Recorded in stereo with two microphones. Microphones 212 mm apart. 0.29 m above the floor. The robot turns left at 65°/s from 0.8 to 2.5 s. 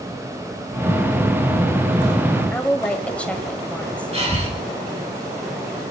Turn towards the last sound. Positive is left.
turn(degrees=-30)  # may be behind; listen again after turning